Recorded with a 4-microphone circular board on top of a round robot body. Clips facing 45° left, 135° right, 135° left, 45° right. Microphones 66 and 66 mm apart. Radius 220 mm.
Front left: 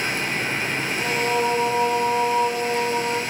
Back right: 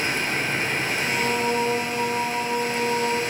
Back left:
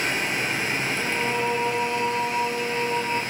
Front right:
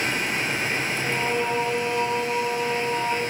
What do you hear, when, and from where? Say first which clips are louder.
1.0 s singing: front left 4 dB, front right 1 dB; 30° left, 3.5 m